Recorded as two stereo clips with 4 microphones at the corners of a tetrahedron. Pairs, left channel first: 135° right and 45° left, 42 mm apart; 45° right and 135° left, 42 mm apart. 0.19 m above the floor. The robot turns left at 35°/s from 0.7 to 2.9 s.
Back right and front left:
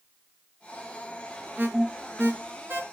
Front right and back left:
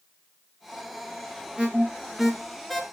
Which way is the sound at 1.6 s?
80° left.